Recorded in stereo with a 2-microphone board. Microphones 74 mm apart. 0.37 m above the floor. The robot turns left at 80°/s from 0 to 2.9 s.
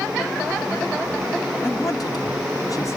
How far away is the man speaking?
About 2 m.